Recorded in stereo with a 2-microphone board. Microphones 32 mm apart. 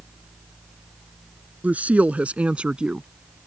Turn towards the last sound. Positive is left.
turn(degrees=-30)  # may be behind; listen again after turning